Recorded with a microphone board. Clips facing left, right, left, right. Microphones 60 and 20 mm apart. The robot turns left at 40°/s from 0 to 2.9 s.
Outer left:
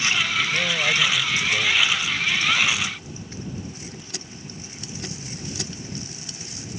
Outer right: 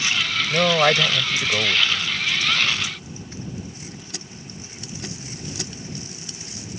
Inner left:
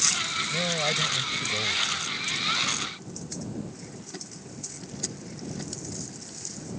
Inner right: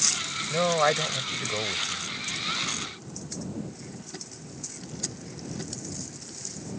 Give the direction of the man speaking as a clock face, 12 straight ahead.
3 o'clock.